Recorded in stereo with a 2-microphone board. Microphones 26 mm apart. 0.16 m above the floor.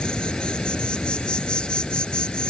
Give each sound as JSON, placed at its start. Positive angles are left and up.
{"t": 0.0, "sound": "an insect", "side_deg": 40}